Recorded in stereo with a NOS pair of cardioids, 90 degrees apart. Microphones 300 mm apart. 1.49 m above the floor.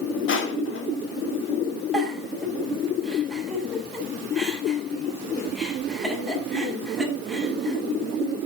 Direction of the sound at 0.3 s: 45° left.